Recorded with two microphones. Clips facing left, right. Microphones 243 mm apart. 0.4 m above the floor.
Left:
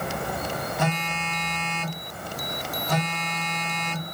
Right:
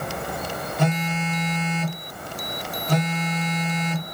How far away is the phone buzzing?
About 0.9 m.